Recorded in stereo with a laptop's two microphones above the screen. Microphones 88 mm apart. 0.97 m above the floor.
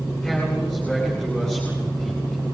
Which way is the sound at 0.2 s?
5° left (ahead or behind).